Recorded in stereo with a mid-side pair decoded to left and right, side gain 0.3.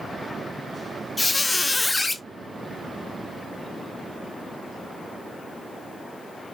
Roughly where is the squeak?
Ahead left.